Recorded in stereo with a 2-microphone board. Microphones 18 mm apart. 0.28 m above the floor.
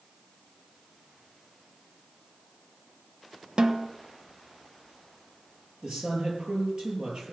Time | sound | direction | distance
3.6 | a snare drum | 50° right (ahead or behind) | 1.1 m
5.8 | a woman speaking | 65° right (ahead or behind) | 5.5 m